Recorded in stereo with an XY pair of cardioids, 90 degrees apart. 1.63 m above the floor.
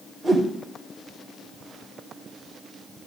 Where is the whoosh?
15° right, 5.5 m.